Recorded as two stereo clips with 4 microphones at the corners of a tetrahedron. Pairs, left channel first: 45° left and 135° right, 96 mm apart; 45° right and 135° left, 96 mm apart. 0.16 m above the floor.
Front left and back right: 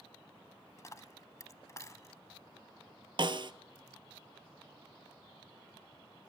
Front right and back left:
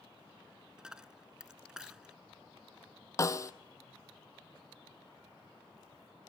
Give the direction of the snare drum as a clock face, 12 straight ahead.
3 o'clock.